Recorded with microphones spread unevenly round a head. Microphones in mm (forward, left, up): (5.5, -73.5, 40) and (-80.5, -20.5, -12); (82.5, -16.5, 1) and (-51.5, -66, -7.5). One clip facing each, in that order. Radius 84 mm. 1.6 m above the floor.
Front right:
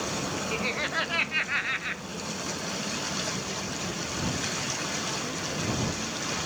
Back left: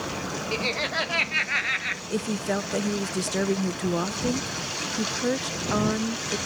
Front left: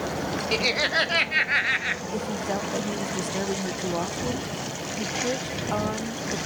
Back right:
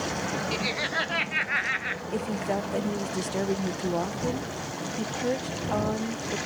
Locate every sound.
0.5 s laughter: 65° left; by 2.0 s 85° left
2.1 s a woman speaking: 120° left